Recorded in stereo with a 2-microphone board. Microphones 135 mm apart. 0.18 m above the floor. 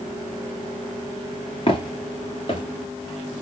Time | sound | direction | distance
1.7 | footsteps | 40° left (ahead or behind) | 2.5 m